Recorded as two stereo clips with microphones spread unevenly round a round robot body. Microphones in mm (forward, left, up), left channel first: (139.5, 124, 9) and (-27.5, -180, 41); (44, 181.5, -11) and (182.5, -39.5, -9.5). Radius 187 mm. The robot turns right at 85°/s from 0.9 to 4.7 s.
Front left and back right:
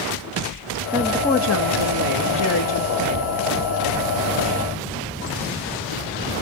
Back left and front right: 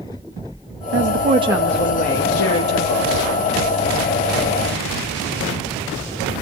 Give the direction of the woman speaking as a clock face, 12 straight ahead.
1 o'clock.